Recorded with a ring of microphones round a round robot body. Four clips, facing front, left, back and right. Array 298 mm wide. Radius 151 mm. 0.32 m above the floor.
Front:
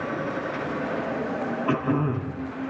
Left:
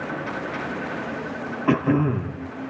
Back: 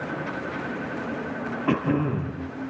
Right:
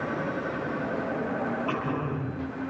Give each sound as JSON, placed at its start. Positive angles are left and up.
{"t": 1.7, "sound": "throat clearing", "azimuth_deg": 115, "distance_m": 4.5}